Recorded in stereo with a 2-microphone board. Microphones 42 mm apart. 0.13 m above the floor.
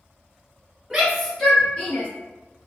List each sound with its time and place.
0.9 s a shout: 15° right (ahead or behind), 1.4 m; by 2.1 s 40° left (ahead or behind), 1.7 m